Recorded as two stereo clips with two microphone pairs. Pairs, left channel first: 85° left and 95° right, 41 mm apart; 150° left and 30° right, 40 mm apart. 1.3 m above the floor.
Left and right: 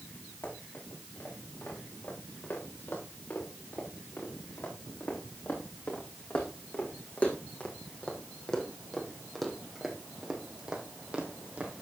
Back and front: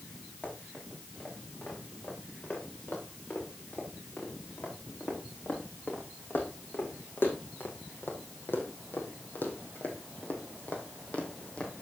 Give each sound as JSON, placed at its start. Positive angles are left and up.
{"t": 0.4, "sound": "running footsteps", "azimuth_deg": 95, "distance_m": 7.5}